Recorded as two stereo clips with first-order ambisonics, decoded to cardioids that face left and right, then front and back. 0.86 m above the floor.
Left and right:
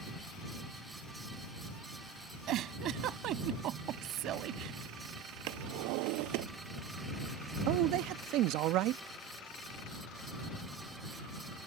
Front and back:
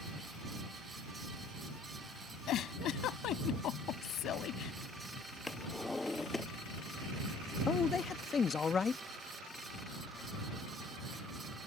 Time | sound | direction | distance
2.5 | a giggle | 45° right | ?
5.5 | a drawer | 80° right | ?
7.7 | a man speaking | 65° right | ?